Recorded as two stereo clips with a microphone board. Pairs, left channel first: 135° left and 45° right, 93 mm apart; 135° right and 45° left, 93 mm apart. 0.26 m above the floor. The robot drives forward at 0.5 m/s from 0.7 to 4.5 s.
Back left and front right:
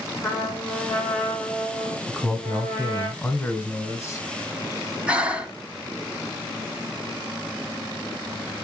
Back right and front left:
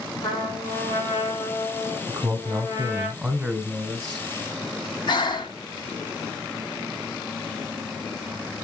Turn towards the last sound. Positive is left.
turn(degrees=-120)